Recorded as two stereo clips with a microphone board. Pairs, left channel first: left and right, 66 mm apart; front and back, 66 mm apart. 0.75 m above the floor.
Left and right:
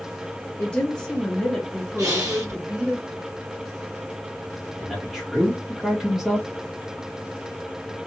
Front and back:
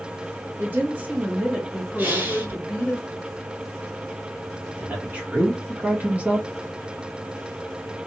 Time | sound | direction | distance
0.6 | a woman speaking | 155° left | 1.1 m
2.0 | breathing | 120° right | 2.0 m
4.8 | a man speaking | 160° right | 0.8 m